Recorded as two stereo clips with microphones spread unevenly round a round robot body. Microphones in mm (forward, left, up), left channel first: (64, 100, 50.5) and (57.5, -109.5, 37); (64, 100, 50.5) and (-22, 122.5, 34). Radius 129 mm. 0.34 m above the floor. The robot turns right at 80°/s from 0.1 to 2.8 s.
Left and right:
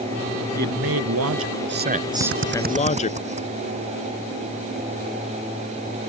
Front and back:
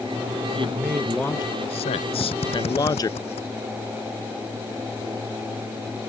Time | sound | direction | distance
0.6 | a man speaking | 150° right | ?
2.2 | a drill | 80° right | ?